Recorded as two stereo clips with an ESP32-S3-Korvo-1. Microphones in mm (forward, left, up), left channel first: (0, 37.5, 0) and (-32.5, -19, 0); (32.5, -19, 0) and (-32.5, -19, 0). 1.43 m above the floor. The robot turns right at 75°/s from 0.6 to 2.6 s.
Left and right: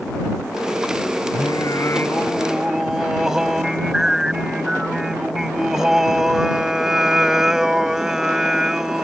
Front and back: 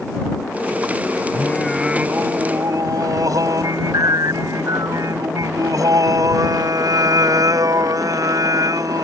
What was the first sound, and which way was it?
Singing, 60° left.